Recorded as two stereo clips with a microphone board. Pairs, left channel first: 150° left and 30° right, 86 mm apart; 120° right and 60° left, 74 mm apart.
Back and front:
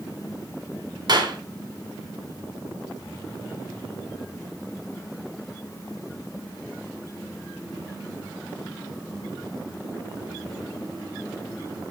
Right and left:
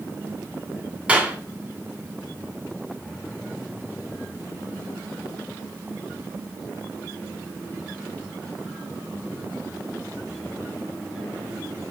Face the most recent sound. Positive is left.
turn(degrees=-10)